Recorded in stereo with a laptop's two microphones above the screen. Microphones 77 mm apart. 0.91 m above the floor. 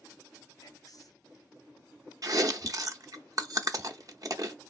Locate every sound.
0.6 s whispering: 55° left (ahead or behind), 0.7 m
2.2 s chewing: 50° right (ahead or behind), 0.6 m